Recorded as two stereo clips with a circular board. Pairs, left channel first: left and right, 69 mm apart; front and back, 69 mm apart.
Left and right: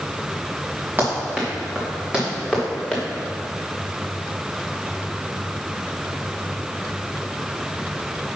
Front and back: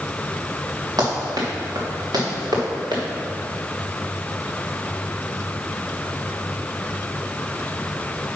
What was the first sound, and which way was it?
Running footsteps, 155° right.